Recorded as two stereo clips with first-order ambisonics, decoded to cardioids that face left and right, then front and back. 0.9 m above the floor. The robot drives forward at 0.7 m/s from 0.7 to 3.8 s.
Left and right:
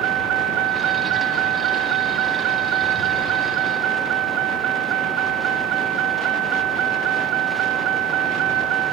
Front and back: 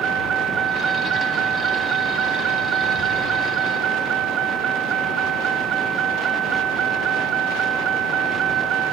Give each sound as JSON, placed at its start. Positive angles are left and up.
{"t": 0.0, "sound": "a vehicle", "azimuth_deg": -125}